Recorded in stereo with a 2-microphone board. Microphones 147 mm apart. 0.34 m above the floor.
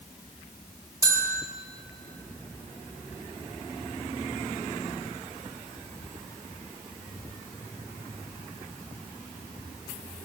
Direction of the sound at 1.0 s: 25° right (ahead or behind).